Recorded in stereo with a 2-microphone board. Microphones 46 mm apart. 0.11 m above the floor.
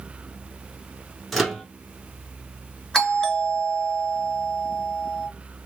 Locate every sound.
1.3 s a microwave: centre (ahead or behind), 0.9 m
2.9 s a doorbell: 15° left (ahead or behind), 2 m